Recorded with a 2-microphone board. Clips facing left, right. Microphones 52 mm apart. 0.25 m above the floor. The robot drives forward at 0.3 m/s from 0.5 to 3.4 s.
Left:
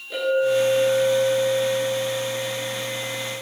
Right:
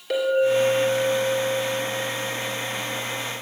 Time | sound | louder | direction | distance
0.1 | a clink | right 1 dB | 75° right (ahead or behind) | 3.5 m